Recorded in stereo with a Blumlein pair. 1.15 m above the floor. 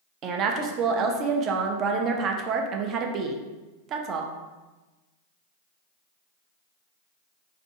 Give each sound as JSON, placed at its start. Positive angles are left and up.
{"t": 0.2, "sound": "a woman speaking", "azimuth_deg": -30, "distance_m": 0.5}